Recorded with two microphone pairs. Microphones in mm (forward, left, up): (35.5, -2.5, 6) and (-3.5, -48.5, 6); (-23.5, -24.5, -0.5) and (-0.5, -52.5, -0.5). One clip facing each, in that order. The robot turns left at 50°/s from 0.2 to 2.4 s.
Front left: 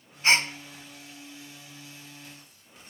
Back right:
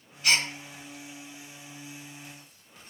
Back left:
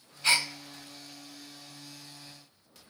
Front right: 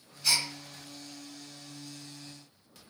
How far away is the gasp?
About 1.2 m.